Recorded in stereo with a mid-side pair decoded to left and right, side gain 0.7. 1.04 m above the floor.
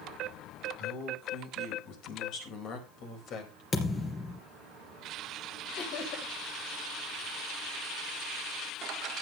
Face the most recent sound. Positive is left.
turn(degrees=55)